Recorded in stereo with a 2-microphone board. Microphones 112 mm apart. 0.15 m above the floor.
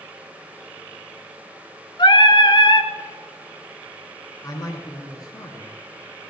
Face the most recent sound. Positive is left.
turn(degrees=35)  # may be behind; listen again after turning